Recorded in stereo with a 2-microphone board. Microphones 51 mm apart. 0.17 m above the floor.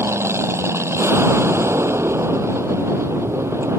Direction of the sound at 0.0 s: 65° right (ahead or behind).